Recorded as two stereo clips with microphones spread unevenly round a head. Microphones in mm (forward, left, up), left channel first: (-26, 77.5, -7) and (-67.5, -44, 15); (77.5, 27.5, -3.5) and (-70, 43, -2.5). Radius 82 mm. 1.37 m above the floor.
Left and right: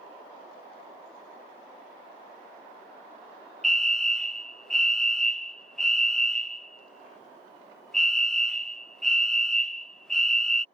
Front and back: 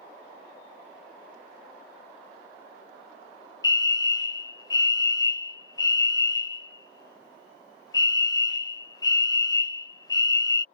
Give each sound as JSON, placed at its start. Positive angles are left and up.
{"t": 3.6, "sound": "a fire alarm", "azimuth_deg": 10}